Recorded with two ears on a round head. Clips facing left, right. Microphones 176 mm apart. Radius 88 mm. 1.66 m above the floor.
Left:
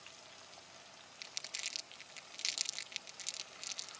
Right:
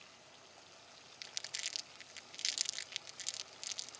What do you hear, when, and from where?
1.2 s crumpling: 10° right (ahead or behind)